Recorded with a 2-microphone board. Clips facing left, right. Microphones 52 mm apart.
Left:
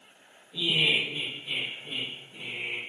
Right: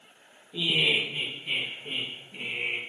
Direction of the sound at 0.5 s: 20° right (ahead or behind).